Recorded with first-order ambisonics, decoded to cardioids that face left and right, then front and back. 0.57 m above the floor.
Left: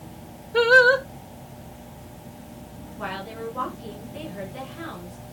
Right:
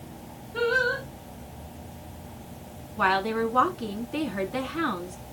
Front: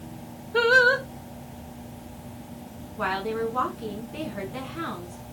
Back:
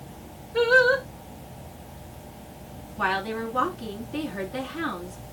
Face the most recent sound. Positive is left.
turn(degrees=-95)